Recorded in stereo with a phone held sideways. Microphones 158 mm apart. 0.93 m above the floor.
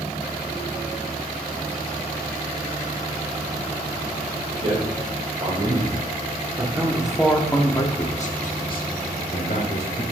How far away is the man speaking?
About 4 m.